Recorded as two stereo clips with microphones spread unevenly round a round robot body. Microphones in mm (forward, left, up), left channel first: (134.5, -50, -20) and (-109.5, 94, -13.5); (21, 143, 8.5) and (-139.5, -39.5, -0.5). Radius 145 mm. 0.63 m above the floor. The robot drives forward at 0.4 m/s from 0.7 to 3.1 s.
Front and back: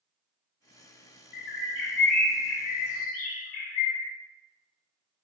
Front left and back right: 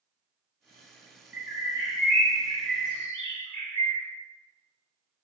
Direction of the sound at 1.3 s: 50° right.